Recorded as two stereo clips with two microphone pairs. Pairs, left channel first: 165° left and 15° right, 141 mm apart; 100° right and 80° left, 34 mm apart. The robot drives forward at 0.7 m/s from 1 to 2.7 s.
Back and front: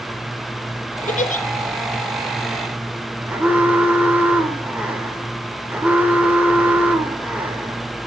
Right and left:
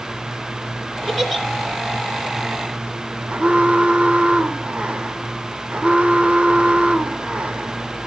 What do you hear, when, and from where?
1.1 s a giggle: 165° left, 1.0 m; by 1.4 s 170° left, 1.2 m
3.3 s an alarm: 60° left, 1.3 m